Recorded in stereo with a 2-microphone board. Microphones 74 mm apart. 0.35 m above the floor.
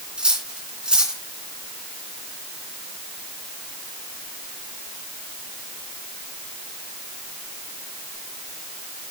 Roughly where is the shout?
I don't hear a shout.